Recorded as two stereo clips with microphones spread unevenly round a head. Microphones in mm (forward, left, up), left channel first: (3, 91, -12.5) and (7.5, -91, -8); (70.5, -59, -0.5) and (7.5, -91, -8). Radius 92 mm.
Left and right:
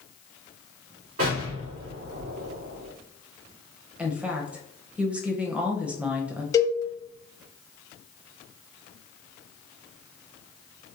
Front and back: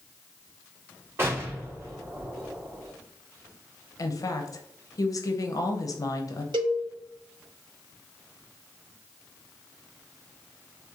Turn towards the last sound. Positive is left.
turn(degrees=165)